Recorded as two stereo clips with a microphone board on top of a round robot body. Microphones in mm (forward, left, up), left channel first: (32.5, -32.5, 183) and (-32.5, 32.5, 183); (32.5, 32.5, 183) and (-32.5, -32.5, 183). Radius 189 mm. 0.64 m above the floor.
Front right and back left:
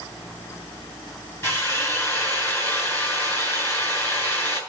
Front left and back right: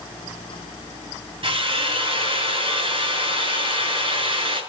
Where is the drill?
105° right, 7.5 m.